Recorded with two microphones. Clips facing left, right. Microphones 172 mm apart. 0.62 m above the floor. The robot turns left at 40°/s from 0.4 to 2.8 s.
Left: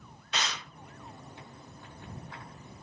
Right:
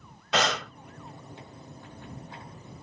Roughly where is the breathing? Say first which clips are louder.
Right 10 dB; right.